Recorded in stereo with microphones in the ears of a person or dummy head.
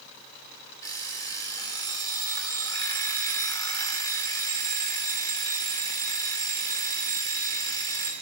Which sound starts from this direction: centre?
An alarm clock, at 0.8 s.